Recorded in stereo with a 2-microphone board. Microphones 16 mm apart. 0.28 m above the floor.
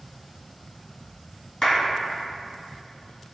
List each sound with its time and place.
1.6 s a clap: 45° left (ahead or behind), 1.5 m